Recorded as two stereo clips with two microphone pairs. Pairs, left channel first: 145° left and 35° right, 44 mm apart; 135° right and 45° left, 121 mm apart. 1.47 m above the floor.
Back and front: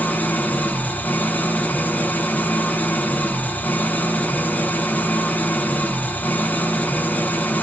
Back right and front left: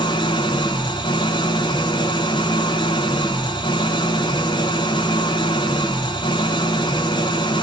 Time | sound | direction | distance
0.0 | an engine running | 175° right | 0.8 m